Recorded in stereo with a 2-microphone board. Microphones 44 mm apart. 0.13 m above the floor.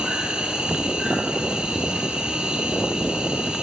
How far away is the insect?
About 1.6 m.